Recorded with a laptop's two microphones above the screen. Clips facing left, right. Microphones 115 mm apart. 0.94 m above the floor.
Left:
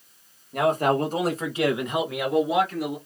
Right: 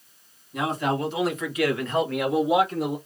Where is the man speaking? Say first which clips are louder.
Left 4 dB; 55° left (ahead or behind), 1.5 m; by 3.0 s 30° right (ahead or behind), 1.1 m.